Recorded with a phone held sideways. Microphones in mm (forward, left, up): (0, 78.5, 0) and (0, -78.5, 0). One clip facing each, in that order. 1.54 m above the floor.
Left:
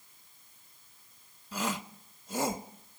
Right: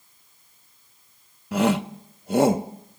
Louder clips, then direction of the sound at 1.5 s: Right 14 dB; 60° right (ahead or behind).